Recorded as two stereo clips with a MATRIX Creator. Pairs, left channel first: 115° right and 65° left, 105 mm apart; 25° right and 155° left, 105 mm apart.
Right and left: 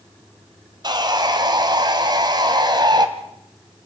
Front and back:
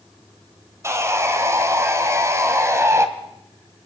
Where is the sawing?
100° left, 1.9 m.